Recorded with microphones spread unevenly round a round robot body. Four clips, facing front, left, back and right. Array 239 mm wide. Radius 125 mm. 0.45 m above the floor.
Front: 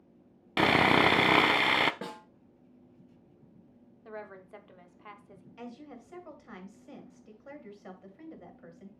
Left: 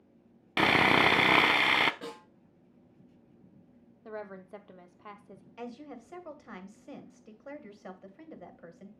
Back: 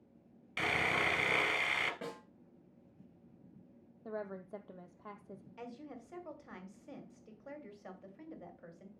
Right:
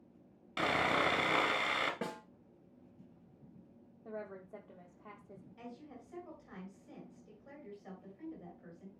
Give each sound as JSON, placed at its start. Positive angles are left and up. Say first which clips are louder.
{"t": 0.6, "sound": "sawing", "louder": "left 8 dB, front 12 dB", "azimuth_deg": 35, "distance_m": 0.6}
{"t": 2.0, "sound": "a snare drum", "louder": "right 1 dB, front 3 dB", "azimuth_deg": -40, "distance_m": 3.5}
{"t": 4.0, "sound": "a woman speaking", "louder": "left 4 dB, back 2 dB", "azimuth_deg": 135, "distance_m": 0.8}
{"t": 5.6, "sound": "a woman speaking", "louder": "left 9 dB, front 4 dB", "azimuth_deg": 85, "distance_m": 2.5}